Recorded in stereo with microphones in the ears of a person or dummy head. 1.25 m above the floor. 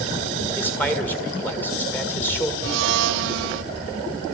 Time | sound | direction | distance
0.6 | a man speaking | 10° left (ahead or behind) | 1.7 m
2.6 | a blender | 65° right (ahead or behind) | 0.8 m